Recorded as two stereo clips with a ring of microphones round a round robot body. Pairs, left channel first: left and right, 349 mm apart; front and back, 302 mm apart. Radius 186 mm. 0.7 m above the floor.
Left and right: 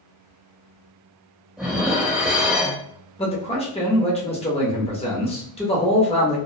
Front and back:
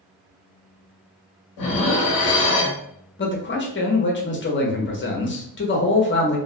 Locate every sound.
1.6 s dishes clattering: straight ahead, 0.7 m
3.2 s a man speaking: 25° left, 0.9 m